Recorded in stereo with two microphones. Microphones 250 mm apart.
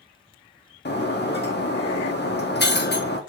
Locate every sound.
0.8 s breaking glass: 40° left (ahead or behind), 0.7 m